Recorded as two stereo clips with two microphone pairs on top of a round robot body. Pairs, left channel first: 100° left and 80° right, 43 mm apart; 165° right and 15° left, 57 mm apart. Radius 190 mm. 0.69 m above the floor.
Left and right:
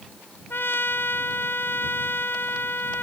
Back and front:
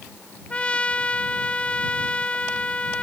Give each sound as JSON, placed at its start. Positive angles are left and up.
{"t": 0.5, "sound": "a trumpet", "azimuth_deg": 125}